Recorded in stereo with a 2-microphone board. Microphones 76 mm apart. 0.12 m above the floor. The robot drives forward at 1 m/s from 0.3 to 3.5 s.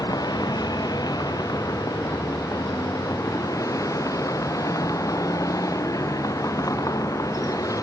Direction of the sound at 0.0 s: 60° left (ahead or behind).